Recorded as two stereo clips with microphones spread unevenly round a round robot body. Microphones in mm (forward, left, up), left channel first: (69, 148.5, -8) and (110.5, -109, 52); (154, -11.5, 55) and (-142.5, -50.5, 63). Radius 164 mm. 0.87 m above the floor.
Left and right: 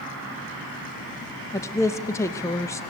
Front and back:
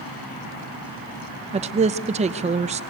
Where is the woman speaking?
135° left, 0.5 m.